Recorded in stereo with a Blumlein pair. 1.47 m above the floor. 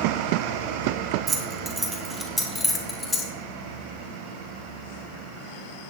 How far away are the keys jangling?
About 1.7 m.